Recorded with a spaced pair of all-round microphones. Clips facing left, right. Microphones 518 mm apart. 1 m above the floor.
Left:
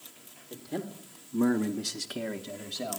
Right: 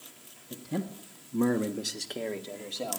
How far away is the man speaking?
About 1.4 m.